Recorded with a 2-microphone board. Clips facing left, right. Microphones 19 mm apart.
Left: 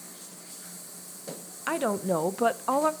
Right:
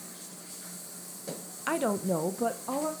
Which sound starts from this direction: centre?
A woman speaking, at 1.7 s.